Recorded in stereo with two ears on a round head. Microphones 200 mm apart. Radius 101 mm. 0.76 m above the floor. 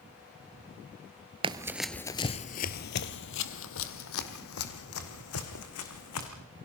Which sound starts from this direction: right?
Running footsteps, at 1.4 s.